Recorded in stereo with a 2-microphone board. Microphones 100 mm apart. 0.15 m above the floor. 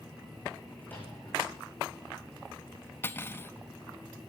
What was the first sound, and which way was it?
A microwave, 20° left (ahead or behind).